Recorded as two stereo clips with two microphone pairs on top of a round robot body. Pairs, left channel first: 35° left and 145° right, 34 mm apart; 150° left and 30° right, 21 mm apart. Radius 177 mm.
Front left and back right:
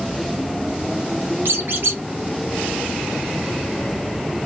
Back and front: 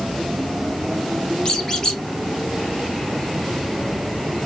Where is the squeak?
145° right, 0.6 m.